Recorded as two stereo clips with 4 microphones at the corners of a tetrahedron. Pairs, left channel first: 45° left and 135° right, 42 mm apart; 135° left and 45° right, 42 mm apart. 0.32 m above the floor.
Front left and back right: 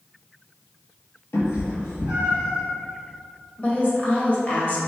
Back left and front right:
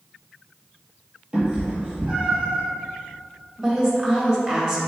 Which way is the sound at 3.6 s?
20° left.